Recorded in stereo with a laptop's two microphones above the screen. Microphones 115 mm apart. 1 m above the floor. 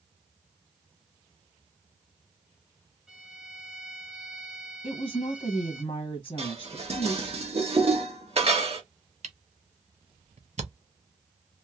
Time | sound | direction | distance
3.1 | a violin | 5° right (ahead or behind) | 0.5 m
4.8 | a woman speaking | 55° left (ahead or behind) | 0.9 m
6.4 | dishes clattering | 55° right (ahead or behind) | 1.1 m
9.2 | a camera shutter | 70° right (ahead or behind) | 0.8 m